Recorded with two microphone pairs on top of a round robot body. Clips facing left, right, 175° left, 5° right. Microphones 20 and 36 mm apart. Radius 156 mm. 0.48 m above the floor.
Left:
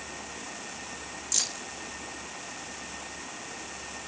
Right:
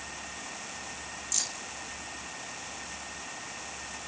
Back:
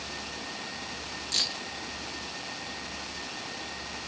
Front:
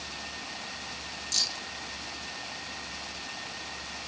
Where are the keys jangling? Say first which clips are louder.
Left 3 dB, back 2 dB; 145° left, 0.6 m.